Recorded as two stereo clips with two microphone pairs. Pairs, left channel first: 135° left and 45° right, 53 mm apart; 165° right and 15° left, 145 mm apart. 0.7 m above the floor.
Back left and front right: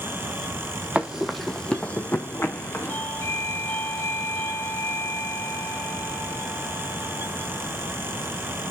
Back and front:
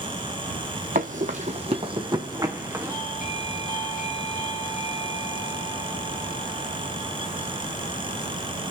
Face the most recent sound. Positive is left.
turn(degrees=180)